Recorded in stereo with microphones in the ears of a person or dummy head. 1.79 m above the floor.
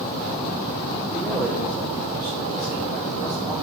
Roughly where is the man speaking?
Centre.